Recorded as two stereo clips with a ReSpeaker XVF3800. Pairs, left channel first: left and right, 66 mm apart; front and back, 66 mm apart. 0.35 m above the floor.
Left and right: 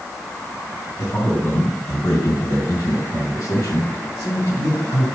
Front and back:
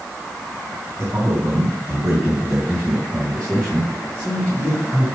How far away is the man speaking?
About 3 m.